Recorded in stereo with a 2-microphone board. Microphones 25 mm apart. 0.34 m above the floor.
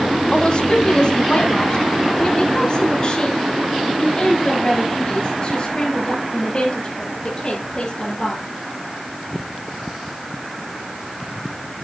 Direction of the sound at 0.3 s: 40° left (ahead or behind).